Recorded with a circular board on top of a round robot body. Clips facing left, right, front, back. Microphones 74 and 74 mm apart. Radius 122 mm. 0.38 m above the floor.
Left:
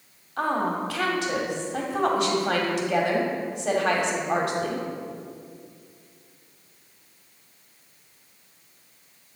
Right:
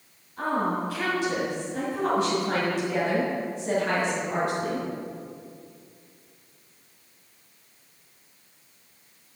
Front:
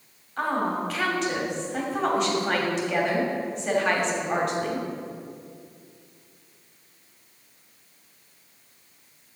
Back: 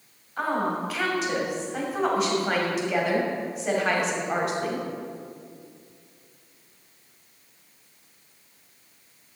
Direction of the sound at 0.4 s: 95° left.